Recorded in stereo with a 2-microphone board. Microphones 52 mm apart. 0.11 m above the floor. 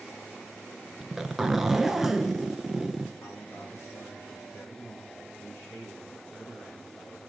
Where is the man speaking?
60° left (ahead or behind), 7.5 m.